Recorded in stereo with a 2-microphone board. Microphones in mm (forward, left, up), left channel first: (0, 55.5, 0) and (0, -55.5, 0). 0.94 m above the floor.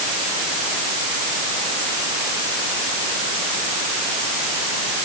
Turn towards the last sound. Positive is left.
No sound to turn to.